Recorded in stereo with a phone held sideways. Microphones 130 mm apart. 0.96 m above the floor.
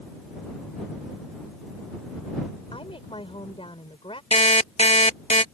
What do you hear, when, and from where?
2.7 s a woman speaking: 45° left (ahead or behind)
4.3 s an alarm clock: 55° left (ahead or behind)